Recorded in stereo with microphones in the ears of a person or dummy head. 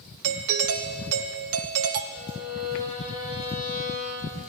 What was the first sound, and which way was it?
A doorbell, 80° right.